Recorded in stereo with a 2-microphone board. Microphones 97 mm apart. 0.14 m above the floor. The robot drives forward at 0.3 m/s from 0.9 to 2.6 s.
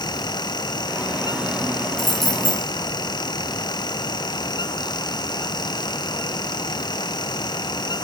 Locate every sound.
2.0 s keys jangling: 5° left (ahead or behind), 5.5 m